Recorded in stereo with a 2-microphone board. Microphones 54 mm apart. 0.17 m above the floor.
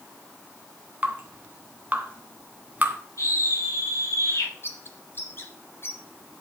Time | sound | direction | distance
1.0 | dripping | 30° right (ahead or behind) | 1.9 m
3.2 | a scream | 65° left (ahead or behind) | 5.5 m
4.6 | a bird | 45° left (ahead or behind) | 1.8 m